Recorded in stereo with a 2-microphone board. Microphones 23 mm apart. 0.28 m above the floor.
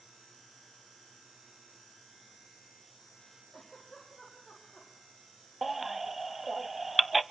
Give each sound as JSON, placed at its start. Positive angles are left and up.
{"t": 3.5, "sound": "a giggle", "side_deg": 0, "distance_m": 8.5}
{"t": 5.6, "sound": "a baby crying", "side_deg": -10, "distance_m": 0.5}